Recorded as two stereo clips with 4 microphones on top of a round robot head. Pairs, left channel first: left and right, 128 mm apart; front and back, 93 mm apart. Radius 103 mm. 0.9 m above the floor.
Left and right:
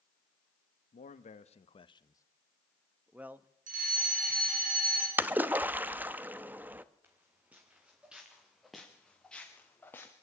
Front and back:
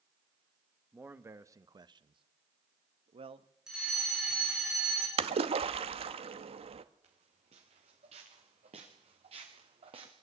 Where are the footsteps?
165° right, 5 m; by 10.1 s 160° left, 3.5 m.